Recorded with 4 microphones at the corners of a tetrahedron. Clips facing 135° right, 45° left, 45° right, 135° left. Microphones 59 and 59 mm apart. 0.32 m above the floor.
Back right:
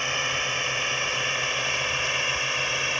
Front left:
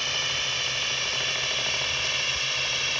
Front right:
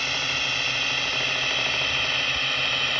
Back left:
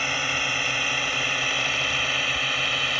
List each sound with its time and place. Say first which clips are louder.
0.0 s a drone: back right 3 dB, back left 2 dB; 170° right; by 3.0 s 150° right